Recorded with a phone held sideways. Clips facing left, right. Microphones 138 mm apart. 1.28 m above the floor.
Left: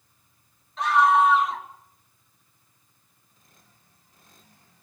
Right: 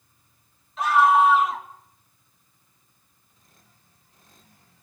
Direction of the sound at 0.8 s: 5° right (ahead or behind).